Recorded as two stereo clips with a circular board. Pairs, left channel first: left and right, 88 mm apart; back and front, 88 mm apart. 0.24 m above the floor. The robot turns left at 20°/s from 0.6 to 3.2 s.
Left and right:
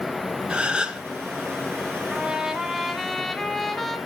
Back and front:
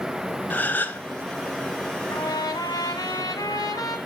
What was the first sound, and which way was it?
A gasp, 150° right.